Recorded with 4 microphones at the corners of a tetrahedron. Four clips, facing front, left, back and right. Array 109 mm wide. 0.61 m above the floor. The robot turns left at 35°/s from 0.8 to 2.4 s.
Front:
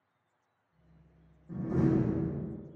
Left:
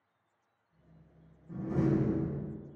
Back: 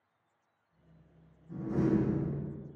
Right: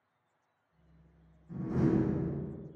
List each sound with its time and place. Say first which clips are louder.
1.5 s a door slam: even, front 1 dB; 15° left, 0.9 m; by 2.6 s 15° right, 0.9 m